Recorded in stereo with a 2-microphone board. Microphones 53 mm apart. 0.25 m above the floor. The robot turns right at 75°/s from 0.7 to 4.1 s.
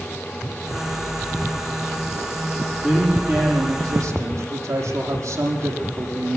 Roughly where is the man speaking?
Behind.